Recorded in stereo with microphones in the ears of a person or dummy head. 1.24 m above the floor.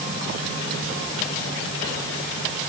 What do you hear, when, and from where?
Only background noise.